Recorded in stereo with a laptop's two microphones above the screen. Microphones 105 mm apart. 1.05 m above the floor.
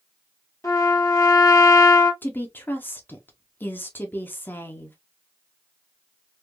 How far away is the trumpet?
About 1.2 m.